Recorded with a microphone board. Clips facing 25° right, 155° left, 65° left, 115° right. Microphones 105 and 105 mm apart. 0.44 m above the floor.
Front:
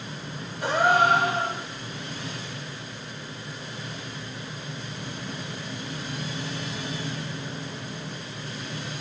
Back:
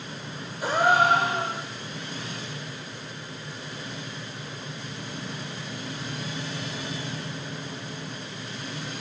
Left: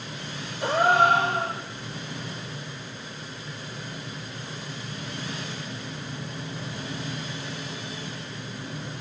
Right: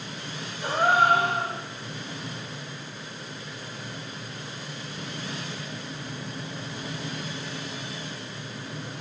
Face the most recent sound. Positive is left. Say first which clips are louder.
# even, left 2 dB
turn(degrees=75)